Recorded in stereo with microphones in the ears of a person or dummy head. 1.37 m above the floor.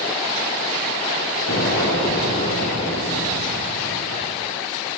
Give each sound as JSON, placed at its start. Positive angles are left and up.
{"t": 1.5, "sound": "an explosion", "side_deg": 50, "distance_m": 8.5}